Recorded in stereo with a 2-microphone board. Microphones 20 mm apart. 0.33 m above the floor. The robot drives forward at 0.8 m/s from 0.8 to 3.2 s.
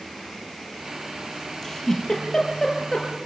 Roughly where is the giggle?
Left.